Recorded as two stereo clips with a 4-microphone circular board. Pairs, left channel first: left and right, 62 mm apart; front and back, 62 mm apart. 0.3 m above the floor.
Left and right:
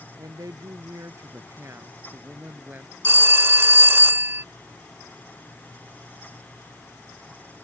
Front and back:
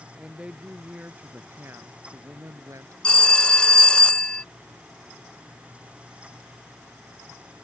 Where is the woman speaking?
105° right; by 2.9 s 155° right.